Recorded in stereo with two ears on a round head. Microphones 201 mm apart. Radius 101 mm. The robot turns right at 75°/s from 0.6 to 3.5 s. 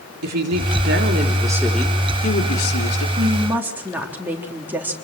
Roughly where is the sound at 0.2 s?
Right.